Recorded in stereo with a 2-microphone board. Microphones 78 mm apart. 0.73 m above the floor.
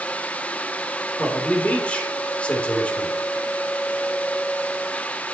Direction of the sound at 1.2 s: 15° left (ahead or behind).